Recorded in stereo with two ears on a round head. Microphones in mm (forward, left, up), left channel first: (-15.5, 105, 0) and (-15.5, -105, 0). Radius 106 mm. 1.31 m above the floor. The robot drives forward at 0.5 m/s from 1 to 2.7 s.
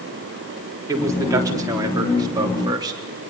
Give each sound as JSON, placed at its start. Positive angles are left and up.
{"t": 0.9, "sound": "a man speaking", "side_deg": -15, "distance_m": 4.0}